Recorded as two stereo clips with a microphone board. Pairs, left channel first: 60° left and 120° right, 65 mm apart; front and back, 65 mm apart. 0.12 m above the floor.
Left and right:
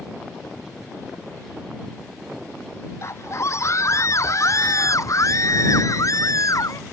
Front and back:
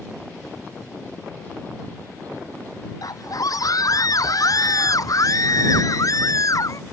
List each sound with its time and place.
3.0 s a scream: 20° left; by 6.8 s 30° left